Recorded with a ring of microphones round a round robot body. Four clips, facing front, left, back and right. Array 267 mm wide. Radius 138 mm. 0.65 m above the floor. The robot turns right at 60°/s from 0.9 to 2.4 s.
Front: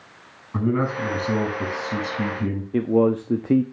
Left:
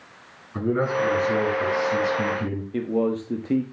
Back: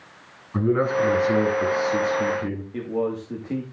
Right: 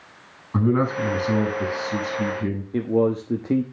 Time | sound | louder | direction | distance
0.5 | a man speaking | right 2 dB, back 2 dB | 70° right | 7 m
2.7 | a man speaking | right 3 dB, front 8 dB | 20° right | 1.0 m